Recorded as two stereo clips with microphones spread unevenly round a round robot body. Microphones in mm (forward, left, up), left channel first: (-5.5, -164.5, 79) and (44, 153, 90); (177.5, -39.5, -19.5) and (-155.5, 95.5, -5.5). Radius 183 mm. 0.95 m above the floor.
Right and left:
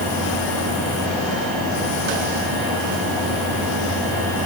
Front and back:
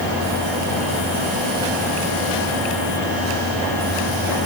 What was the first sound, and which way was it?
Only background noise.